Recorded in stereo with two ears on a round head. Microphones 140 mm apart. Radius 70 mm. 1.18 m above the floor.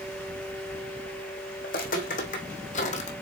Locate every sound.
1.6 s footsteps: 60° left (ahead or behind), 3 m; by 3.1 s 45° left (ahead or behind), 2 m